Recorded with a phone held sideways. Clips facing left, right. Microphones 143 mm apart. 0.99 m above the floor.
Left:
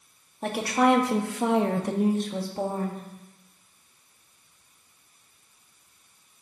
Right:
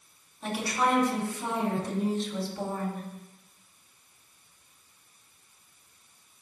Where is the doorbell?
No doorbell in this recording.